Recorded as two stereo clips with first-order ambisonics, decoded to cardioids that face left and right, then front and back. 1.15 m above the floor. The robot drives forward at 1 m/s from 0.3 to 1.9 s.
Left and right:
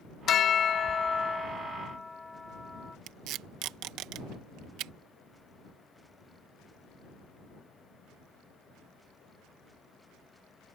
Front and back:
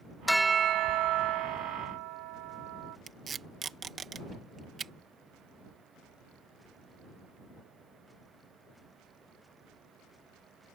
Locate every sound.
0.3 s a bell: 85° left; by 3.0 s 170° left
3.1 s tape being pulled: 115° right